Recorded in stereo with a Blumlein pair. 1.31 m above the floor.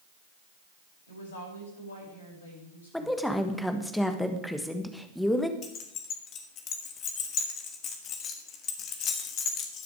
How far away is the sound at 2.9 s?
About 1.5 m.